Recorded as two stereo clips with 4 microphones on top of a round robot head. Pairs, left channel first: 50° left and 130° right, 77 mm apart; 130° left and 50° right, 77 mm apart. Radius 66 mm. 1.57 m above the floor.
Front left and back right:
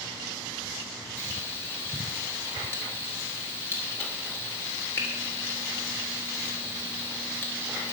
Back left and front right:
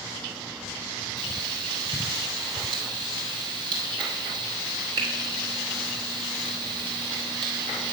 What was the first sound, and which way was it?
Frying, 15° right.